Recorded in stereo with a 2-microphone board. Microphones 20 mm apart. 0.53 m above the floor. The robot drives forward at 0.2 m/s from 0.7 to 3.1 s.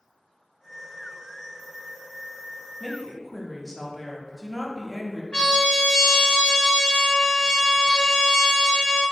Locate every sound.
2.8 s a woman speaking: centre (ahead or behind), 0.6 m
5.3 s a trumpet: 75° left (ahead or behind), 0.6 m